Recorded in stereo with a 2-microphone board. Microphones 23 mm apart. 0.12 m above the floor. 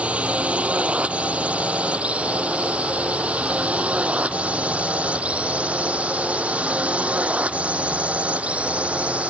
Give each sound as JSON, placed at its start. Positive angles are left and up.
{"t": 0.0, "sound": "a drone", "side_deg": -65}